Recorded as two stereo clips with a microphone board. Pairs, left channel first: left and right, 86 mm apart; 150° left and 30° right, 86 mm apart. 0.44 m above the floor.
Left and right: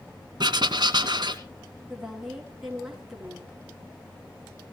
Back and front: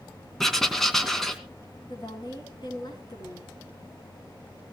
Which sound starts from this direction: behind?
A woman speaking, at 1.9 s.